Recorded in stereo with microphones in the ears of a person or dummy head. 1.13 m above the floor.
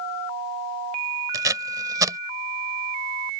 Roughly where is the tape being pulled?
Centre.